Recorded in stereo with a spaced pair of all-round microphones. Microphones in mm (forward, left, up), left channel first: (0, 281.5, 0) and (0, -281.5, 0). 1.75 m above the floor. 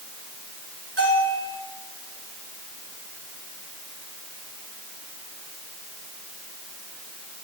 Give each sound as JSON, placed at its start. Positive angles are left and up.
{"t": 1.0, "sound": "a bell", "side_deg": -50, "distance_m": 9.0}